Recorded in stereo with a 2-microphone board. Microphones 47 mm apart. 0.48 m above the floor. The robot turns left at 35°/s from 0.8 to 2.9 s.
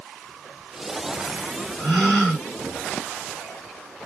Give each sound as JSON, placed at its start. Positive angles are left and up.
{"t": 1.8, "sound": "a gasp", "side_deg": 5, "distance_m": 1.6}